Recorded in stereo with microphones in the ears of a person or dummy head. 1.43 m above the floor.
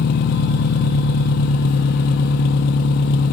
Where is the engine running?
50° left (ahead or behind), 1.0 m.